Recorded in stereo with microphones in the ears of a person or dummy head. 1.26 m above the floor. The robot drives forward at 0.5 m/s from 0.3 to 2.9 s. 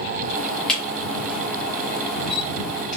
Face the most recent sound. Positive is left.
turn(degrees=0)  # may be behind; listen again after turning